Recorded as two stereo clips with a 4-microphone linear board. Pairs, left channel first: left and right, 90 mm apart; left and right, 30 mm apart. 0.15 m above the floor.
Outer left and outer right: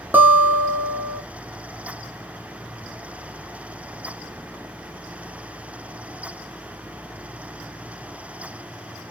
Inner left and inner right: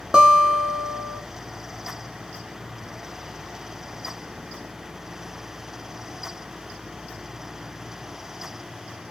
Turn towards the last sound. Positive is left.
turn(degrees=-20)  # may be behind; listen again after turning